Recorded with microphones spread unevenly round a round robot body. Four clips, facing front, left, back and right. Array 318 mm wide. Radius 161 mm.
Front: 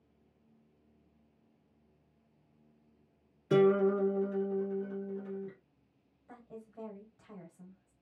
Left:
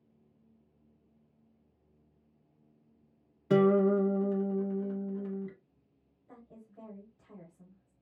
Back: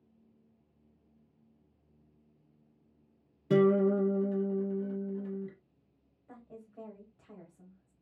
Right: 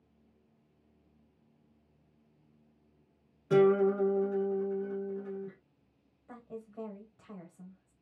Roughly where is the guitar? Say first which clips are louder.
Even, back 1 dB; behind left.